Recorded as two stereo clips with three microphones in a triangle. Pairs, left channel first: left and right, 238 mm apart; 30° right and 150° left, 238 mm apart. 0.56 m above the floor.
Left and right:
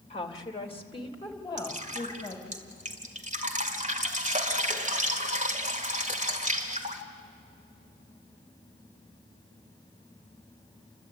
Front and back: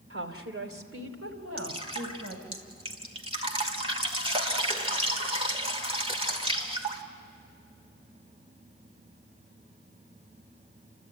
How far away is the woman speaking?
About 2 m.